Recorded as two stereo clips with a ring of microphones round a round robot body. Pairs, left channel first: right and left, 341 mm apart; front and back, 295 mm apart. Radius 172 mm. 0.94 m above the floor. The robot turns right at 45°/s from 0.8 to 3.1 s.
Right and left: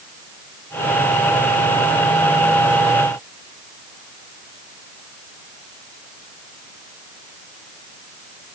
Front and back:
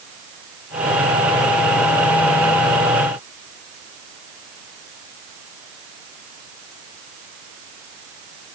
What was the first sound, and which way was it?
Only background noise.